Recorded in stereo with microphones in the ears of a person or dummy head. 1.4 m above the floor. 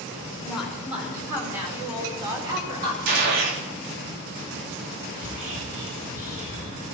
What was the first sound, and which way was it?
A woman speaking, 5° right (ahead or behind).